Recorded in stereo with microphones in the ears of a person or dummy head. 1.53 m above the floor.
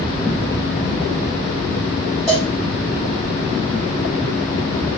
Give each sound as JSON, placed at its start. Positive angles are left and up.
{"t": 2.3, "sound": "a cowbell", "side_deg": 0, "distance_m": 0.8}